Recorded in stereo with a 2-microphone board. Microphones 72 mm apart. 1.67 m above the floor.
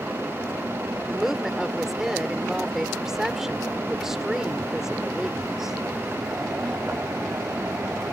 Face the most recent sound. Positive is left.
turn(degrees=-5)  # may be behind; listen again after turning